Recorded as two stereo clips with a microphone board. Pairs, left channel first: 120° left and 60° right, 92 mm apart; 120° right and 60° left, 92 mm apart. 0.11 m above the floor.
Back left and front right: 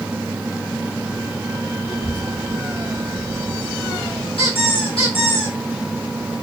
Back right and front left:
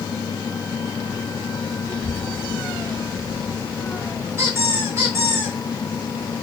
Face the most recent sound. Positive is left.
turn(degrees=120)